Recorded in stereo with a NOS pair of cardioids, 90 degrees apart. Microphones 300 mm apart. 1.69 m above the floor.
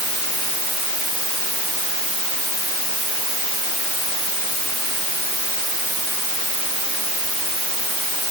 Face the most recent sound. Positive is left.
No sound to turn to.